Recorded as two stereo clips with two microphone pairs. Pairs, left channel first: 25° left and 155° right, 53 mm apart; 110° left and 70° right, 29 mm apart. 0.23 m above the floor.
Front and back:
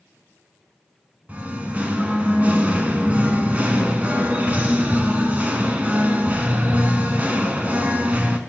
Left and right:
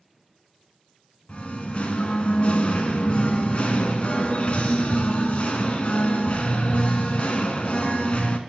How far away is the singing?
About 0.8 m.